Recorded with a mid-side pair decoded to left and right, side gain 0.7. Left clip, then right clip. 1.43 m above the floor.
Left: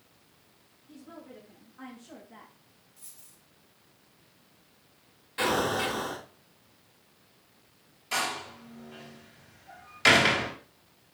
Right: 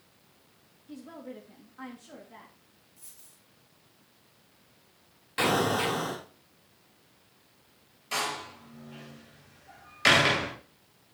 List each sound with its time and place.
0.9 s a woman speaking: 40° right, 3 m; by 2.5 s straight ahead, 3 m
3.0 s a dropped coin: straight ahead, 5.5 m
5.4 s an explosion: 30° right, 4 m
8.1 s a door slam: 5° right, 4 m